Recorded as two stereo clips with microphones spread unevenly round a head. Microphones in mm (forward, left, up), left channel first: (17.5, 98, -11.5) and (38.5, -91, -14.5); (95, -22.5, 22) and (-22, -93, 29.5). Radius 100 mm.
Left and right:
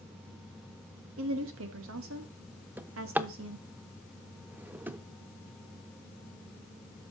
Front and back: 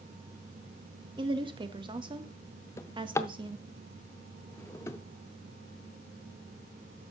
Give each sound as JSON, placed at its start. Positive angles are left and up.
{"t": 1.2, "sound": "a woman speaking", "azimuth_deg": -95, "distance_m": 1.4}
{"t": 2.8, "sound": "a drawer", "azimuth_deg": -15, "distance_m": 0.5}